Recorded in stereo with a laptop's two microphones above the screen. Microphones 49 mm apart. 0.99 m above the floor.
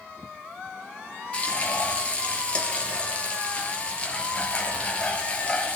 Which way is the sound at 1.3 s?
25° left (ahead or behind).